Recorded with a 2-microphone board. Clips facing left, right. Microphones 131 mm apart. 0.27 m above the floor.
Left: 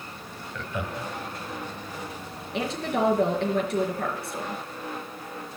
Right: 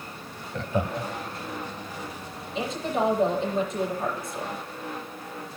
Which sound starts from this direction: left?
A woman speaking, at 2.5 s.